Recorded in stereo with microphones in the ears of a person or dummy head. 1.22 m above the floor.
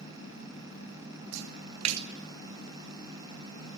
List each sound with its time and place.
1.3 s a splash: 80° right, 2.5 m